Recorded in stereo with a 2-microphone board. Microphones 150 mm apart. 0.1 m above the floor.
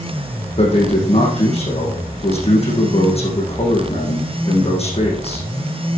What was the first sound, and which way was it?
A man speaking, 45° left (ahead or behind).